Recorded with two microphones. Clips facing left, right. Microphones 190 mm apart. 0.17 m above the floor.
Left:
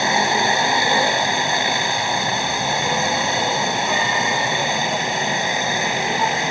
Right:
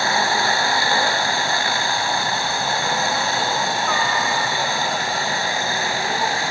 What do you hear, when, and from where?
0.0 s a helicopter: 20° left (ahead or behind)